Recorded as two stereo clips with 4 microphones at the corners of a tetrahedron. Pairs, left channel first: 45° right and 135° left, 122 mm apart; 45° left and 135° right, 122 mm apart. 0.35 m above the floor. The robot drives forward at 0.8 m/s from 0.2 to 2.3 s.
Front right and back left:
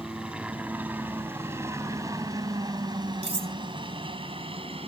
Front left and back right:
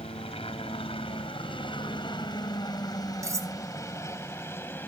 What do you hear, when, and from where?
0.0 s a helicopter: 55° left; by 4.9 s 115° left
3.2 s cutlery clinking: 165° left